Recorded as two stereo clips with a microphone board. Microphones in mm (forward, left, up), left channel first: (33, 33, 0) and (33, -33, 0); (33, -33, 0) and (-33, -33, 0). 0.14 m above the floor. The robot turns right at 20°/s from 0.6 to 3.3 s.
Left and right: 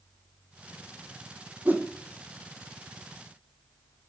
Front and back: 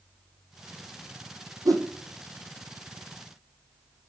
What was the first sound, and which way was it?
A whoosh, 155° right.